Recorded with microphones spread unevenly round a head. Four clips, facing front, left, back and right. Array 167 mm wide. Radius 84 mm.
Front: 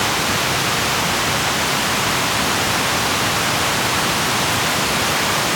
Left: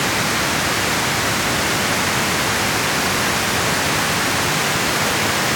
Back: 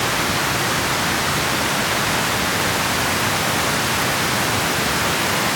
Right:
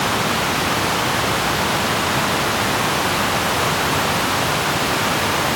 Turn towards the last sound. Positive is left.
No sound to turn to.